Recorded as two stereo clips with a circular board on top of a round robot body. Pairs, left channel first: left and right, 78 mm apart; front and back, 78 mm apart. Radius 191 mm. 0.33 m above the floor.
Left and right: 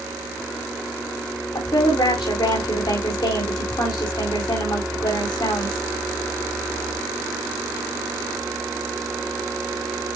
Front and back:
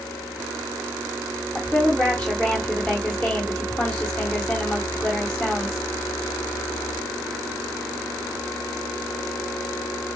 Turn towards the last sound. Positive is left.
turn(degrees=80)